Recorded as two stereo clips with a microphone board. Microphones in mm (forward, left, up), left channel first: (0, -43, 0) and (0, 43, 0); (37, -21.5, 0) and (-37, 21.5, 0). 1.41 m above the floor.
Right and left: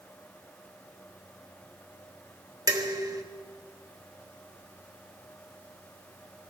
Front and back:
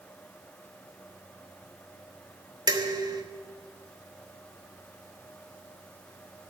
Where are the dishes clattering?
125° left, 1.1 m.